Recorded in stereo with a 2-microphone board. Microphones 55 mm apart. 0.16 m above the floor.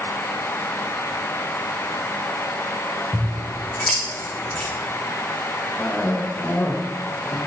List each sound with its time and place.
3.1 s scissors: 20° left (ahead or behind), 6 m
5.8 s a cough: 40° left (ahead or behind), 3 m